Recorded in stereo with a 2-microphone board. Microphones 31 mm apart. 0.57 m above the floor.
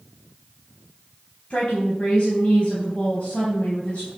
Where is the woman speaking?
40° left (ahead or behind), 3.5 m.